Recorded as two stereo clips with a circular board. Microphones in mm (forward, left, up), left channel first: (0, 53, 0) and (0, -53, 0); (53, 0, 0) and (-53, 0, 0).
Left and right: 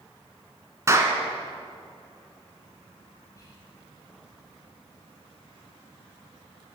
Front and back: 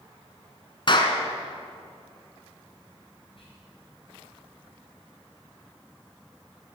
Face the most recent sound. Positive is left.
turn(degrees=35)